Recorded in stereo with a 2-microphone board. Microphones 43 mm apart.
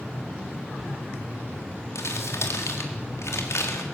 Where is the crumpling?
85° left, 4 m.